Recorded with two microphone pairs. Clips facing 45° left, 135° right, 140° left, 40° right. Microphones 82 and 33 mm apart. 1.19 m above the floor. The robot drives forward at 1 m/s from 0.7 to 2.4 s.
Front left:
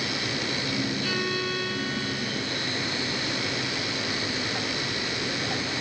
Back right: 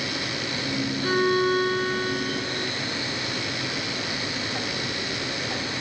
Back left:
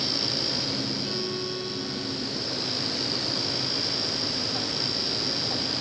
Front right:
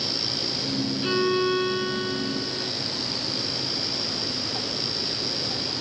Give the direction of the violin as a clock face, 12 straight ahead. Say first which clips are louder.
Back right 8 dB, front right 8 dB; 3 o'clock.